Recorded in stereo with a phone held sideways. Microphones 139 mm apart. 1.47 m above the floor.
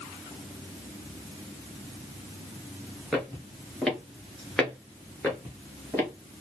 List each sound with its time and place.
3.1 s footsteps: 5° right (ahead or behind), 1.5 m; by 6.1 s 15° left (ahead or behind), 1.6 m